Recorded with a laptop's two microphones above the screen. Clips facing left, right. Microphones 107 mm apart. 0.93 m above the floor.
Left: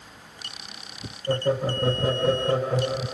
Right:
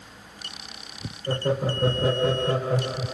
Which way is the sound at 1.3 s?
65° right (ahead or behind).